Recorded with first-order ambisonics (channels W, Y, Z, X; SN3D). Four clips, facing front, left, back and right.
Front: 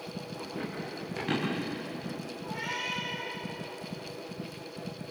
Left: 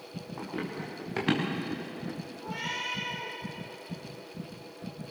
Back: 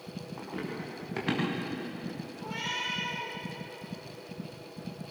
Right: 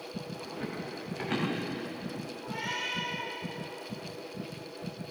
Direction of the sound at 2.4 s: 160° left.